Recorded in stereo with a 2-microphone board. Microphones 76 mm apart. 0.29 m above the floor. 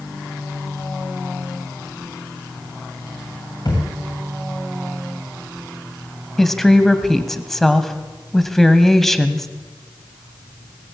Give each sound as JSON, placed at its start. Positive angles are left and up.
{"t": 3.6, "sound": "a thud", "side_deg": 55, "distance_m": 8.5}
{"t": 6.4, "sound": "a woman speaking", "side_deg": 5, "distance_m": 1.7}